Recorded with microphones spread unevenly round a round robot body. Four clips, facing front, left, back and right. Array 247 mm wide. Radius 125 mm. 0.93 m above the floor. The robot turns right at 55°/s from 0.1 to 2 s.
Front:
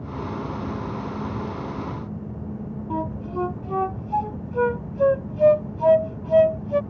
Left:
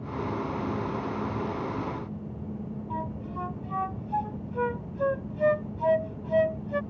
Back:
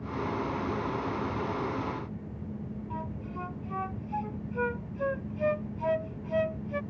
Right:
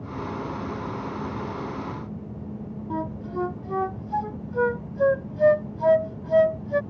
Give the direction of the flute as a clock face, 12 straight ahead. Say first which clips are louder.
Right 6 dB, front 13 dB; 1 o'clock.